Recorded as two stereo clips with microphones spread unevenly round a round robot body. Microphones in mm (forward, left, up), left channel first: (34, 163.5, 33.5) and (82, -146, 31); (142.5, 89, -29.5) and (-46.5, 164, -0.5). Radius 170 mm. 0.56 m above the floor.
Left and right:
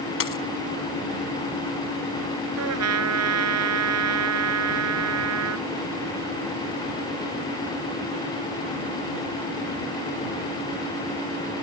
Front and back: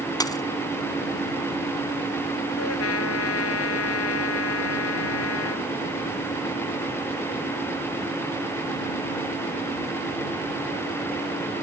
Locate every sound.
0.2 s a dropped coin: 50° left
2.6 s a trumpet: 40° right